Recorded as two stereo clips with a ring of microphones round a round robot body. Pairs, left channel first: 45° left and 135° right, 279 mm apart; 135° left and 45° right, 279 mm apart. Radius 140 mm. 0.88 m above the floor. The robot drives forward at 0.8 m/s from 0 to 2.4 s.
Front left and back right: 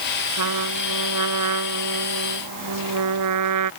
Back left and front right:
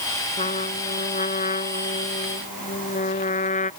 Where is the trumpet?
155° right; by 3.7 s 160° right.